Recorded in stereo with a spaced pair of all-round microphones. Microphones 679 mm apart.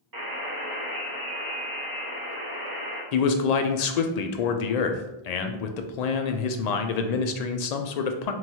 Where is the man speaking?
75° left (ahead or behind), 0.5 m.